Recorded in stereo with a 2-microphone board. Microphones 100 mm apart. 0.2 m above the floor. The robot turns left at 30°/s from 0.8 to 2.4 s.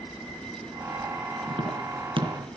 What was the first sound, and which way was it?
Tapping, 60° right (ahead or behind).